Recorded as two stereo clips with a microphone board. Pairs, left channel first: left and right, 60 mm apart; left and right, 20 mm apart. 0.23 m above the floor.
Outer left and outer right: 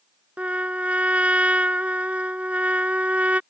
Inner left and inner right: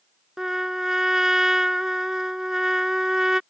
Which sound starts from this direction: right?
A trumpet, at 0.4 s.